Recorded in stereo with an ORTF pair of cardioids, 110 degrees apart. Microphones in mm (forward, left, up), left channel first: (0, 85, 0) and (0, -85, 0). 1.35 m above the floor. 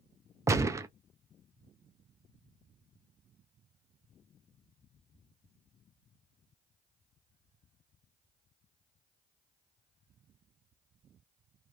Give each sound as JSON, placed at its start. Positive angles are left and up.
{"t": 0.5, "sound": "a gunshot", "azimuth_deg": -15, "distance_m": 0.5}